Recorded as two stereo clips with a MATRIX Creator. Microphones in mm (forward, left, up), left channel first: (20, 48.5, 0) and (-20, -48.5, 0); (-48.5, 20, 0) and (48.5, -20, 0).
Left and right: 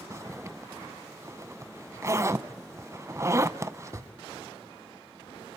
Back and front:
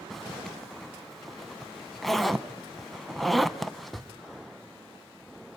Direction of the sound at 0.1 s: 110° right.